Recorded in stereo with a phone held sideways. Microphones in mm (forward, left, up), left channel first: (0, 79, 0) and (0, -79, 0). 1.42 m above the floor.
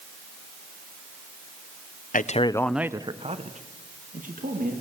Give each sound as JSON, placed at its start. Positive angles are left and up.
{"t": 2.1, "sound": "a man speaking", "side_deg": 55, "distance_m": 0.7}